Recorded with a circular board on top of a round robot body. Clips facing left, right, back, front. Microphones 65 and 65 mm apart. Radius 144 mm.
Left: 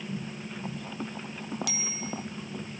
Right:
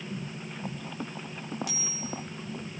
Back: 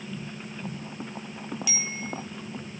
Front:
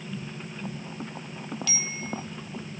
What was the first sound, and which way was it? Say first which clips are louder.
A bicycle bell: left 1 dB, even; 105° left.